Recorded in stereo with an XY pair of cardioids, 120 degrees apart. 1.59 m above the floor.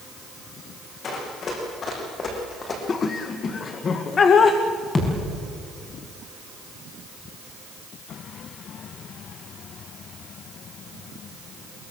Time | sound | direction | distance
1.0 | running footsteps | 45° left | 6.5 m
2.9 | laughter | 40° left | 1.5 m
5.0 | a thud | 30° left | 6 m